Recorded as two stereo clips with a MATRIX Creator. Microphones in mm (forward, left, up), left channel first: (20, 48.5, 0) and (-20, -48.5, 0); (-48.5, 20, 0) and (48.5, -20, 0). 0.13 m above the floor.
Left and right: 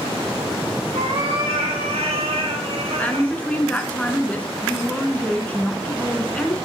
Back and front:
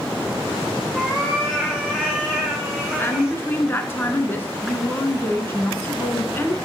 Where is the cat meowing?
125° right, 4 m; by 3.4 s 105° right, 3 m.